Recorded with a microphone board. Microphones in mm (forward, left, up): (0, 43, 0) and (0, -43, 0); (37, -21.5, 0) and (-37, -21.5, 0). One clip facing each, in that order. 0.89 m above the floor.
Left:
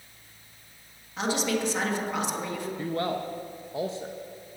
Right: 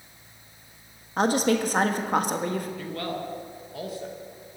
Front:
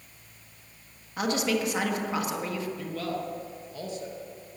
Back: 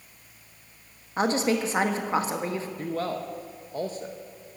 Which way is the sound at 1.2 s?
125° right.